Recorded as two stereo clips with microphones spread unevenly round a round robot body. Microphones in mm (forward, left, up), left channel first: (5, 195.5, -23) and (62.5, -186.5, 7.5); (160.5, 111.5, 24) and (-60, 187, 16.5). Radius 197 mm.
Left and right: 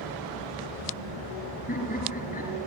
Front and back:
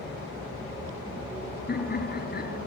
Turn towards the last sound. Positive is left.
turn(degrees=30)